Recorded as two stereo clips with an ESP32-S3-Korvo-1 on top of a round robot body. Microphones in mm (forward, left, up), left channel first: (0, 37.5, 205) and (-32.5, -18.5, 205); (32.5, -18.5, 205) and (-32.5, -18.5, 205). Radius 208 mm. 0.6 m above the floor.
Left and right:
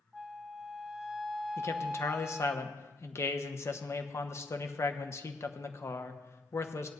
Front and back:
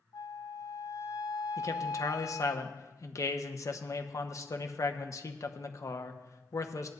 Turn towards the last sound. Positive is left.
turn(degrees=25)